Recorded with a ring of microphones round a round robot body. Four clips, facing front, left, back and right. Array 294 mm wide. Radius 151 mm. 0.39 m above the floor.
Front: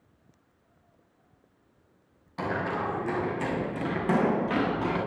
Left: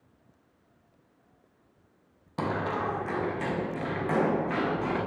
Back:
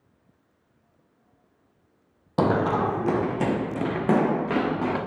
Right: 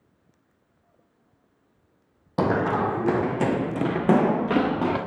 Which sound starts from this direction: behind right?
Running footsteps, at 2.4 s.